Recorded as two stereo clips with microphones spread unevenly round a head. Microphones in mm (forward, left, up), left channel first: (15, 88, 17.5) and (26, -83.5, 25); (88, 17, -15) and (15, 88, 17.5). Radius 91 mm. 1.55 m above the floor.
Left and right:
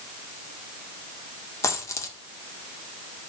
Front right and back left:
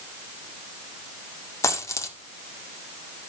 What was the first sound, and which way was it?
A dropped coin, 25° left.